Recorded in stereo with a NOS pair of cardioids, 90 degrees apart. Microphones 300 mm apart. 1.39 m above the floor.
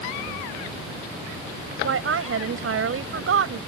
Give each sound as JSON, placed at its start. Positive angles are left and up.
{"t": 1.8, "sound": "a woman speaking", "azimuth_deg": -45}